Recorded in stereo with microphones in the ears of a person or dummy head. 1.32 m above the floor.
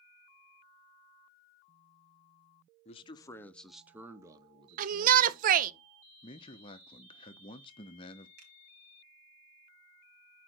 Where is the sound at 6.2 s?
35° left (ahead or behind), 0.7 m.